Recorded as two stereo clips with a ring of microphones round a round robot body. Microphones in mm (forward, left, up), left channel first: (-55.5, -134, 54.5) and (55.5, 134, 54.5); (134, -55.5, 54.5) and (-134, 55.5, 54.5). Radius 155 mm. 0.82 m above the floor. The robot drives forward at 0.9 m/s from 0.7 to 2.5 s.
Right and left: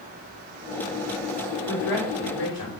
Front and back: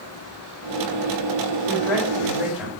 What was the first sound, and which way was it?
A woman speaking, 105° right.